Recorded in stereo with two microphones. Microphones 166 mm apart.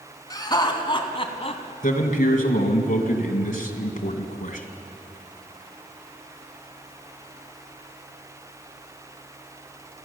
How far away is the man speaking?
About 2 m.